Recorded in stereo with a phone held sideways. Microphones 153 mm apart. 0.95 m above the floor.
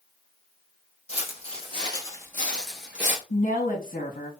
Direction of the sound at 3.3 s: 55° left (ahead or behind).